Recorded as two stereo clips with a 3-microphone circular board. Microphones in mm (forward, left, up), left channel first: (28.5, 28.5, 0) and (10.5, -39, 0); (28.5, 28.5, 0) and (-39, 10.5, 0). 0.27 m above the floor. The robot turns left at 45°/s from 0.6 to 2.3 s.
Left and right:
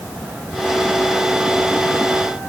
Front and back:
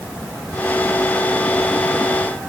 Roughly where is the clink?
No clink in this recording.